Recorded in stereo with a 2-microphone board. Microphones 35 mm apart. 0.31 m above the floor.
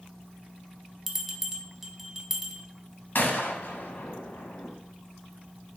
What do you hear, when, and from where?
1.1 s a bell: 10° right (ahead or behind), 0.5 m
3.1 s a gunshot: 75° left (ahead or behind), 0.6 m